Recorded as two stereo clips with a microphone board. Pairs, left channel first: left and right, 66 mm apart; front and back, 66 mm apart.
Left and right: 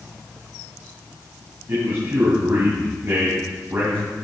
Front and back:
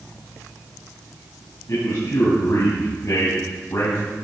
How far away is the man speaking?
About 3 m.